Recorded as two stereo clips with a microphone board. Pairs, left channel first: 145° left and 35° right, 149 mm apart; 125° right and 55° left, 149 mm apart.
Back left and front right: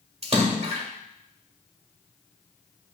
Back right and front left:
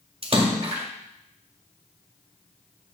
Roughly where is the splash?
Ahead.